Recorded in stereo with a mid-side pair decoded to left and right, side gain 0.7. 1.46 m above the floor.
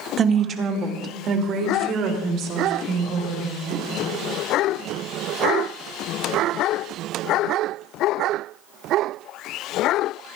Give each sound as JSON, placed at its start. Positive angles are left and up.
{"t": 0.2, "sound": "a woman speaking", "azimuth_deg": -35, "distance_m": 2.0}